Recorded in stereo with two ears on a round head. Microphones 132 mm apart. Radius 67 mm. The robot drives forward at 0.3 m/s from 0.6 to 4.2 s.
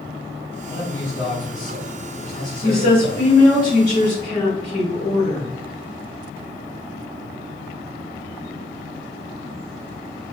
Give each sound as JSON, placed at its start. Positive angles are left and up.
{"t": 0.7, "sound": "a man speaking", "side_deg": 65, "distance_m": 1.3}
{"t": 2.6, "sound": "a woman speaking", "side_deg": 30, "distance_m": 2.0}